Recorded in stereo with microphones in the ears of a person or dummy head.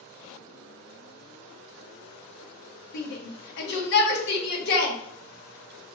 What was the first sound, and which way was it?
A shout, 60° left (ahead or behind).